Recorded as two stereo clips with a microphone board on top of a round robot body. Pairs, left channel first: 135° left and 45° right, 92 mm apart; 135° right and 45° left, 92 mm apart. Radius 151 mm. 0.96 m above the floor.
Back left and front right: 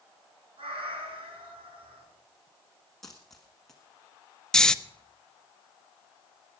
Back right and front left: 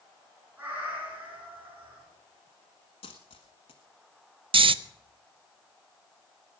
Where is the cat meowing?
30° right, 5.5 m.